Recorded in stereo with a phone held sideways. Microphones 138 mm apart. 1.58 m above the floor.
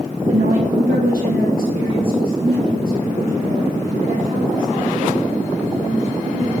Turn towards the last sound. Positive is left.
turn(degrees=-65)  # may be behind; listen again after turning